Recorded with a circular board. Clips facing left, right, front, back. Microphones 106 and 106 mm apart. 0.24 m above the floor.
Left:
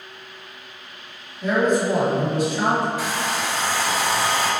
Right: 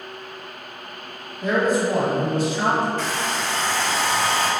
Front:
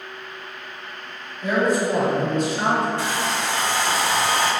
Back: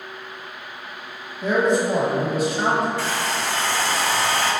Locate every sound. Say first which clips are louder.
1.4 s a man speaking: left 1 dB, back 1 dB; 155° right, 1.4 m; by 2.9 s 85° left, 1.3 m
3.0 s a hair dryer: even, even; 30° left, 0.6 m